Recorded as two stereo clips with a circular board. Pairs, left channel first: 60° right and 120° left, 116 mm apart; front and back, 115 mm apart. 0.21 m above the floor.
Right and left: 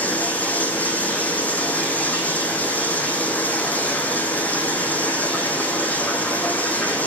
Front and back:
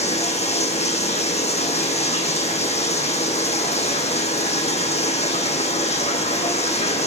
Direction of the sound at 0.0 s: 15° left.